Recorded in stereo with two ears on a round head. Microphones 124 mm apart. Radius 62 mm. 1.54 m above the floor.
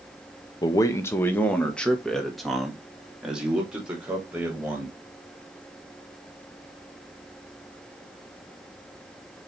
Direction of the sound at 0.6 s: 30° left (ahead or behind).